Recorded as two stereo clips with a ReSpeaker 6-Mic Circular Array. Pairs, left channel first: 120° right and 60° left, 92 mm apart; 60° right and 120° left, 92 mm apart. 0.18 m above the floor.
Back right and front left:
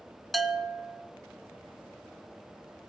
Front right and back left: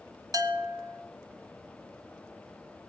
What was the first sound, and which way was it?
A bell, 150° left.